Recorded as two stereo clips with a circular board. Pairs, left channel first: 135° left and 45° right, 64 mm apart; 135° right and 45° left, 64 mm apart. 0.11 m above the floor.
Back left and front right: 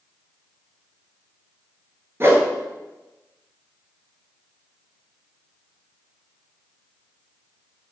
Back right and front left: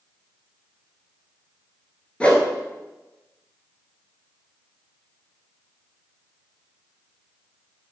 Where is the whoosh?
70° right, 1.2 m.